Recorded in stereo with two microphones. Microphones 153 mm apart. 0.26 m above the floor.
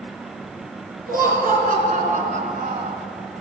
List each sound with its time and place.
1.1 s laughter: 65° right (ahead or behind), 3.5 m; by 3.0 s 45° right (ahead or behind), 1.7 m